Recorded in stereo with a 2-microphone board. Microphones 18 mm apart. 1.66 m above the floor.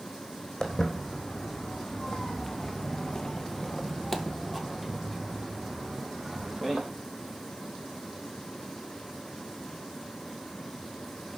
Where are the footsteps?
25° left (ahead or behind), 3.5 m; by 6.8 s 10° right (ahead or behind), 4.5 m.